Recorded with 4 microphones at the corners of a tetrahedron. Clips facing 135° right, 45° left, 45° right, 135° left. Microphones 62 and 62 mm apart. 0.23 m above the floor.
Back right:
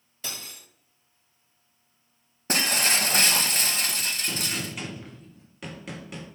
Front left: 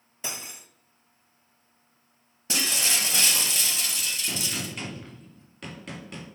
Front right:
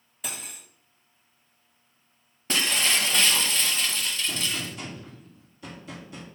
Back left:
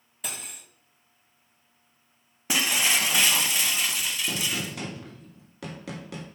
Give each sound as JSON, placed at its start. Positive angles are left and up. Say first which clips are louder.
{"t": 0.2, "sound": "cutlery clinking", "louder": "front left 2 dB, even", "azimuth_deg": 50, "distance_m": 0.5}
{"t": 2.5, "sound": "breaking glass", "louder": "back right 4 dB, even", "azimuth_deg": -150, "distance_m": 0.8}
{"t": 4.3, "sound": "a gunshot", "louder": "back right 1 dB, back left 1 dB", "azimuth_deg": 140, "distance_m": 1.8}